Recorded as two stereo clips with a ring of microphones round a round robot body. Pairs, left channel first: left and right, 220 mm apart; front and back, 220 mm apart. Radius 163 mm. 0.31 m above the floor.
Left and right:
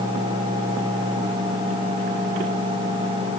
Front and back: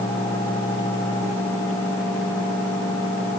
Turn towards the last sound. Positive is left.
No sound to turn to.